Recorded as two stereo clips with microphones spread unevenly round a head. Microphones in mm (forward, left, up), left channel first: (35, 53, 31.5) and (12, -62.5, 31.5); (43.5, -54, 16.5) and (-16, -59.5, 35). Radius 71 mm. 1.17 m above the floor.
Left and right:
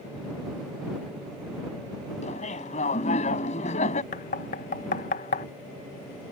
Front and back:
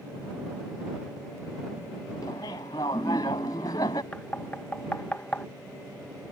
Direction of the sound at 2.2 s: 55° left.